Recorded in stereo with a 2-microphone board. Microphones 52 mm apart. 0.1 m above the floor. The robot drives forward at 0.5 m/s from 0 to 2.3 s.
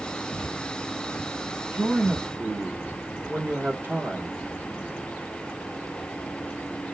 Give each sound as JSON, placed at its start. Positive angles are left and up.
{"t": 1.7, "sound": "a man speaking", "side_deg": -40, "distance_m": 1.4}